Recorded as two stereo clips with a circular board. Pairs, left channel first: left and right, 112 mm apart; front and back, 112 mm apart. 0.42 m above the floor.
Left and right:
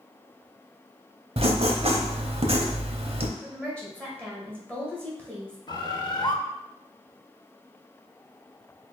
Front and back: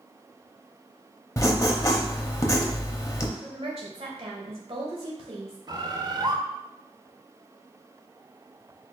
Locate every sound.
1.4 s writing: 60° right, 0.6 m
3.4 s a woman speaking: 165° left, 1.9 m
5.7 s a bird: 135° left, 0.5 m